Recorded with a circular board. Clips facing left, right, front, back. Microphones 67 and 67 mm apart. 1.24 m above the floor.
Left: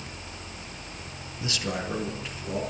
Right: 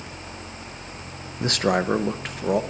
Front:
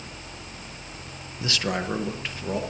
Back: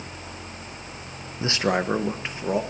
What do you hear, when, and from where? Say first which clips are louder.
1.4 s a man speaking: right 10 dB, back 4 dB; 120° right, 0.9 m; by 2.6 s 110° right, 1.6 m